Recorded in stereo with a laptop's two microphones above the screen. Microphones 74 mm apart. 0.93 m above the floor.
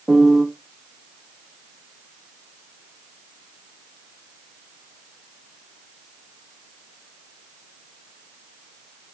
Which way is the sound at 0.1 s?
5° right (ahead or behind).